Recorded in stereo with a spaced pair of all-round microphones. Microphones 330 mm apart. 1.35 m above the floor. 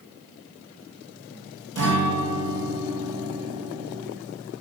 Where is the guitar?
65° right (ahead or behind), 6 m.